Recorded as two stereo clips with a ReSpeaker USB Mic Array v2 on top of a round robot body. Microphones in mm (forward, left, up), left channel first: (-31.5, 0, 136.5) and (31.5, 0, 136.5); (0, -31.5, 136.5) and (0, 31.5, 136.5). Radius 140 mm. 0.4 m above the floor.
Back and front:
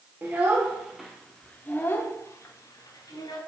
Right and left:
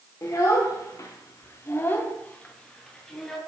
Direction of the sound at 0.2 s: 60° right.